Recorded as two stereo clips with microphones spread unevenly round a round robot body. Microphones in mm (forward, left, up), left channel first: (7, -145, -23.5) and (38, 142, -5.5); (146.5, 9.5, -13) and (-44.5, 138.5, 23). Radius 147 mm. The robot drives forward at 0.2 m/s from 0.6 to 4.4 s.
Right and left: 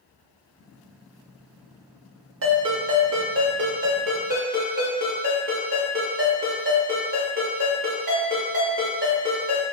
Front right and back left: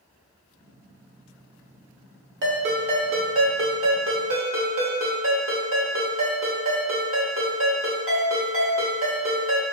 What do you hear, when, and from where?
2.4 s a ringtone: 120° left, 0.9 m; by 9.6 s 140° left, 1.1 m